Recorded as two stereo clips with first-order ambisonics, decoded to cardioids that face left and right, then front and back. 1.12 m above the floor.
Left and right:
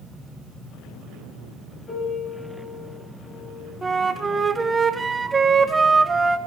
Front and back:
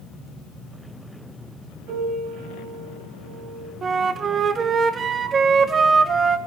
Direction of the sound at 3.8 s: 150° right.